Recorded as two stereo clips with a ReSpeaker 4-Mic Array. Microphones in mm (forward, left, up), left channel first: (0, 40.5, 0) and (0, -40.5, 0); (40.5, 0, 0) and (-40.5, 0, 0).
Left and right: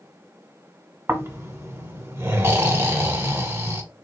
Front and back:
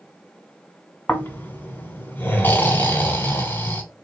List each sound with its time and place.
1.1 s snoring: 50° right, 1.2 m